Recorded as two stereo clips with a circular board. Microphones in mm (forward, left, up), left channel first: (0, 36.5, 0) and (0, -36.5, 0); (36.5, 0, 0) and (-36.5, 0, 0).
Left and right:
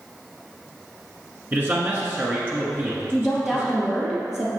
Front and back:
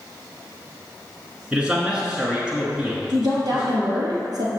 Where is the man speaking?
115° right, 1.3 m.